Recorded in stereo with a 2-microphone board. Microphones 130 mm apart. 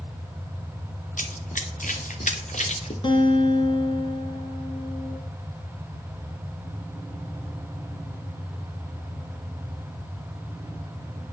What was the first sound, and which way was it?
Running footsteps, 80° left.